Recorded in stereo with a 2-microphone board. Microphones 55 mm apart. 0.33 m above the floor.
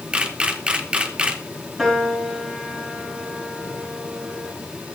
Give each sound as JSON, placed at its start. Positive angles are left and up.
{"t": 0.1, "sound": "a camera shutter", "side_deg": -20, "distance_m": 1.9}
{"t": 1.8, "sound": "a piano", "side_deg": -5, "distance_m": 7.0}